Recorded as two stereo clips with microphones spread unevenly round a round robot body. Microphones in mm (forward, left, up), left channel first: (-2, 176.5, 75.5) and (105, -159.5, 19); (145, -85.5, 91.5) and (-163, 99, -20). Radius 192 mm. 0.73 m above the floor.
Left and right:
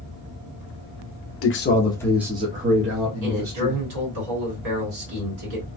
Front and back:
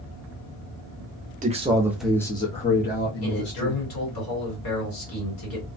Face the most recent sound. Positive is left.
turn(degrees=-70)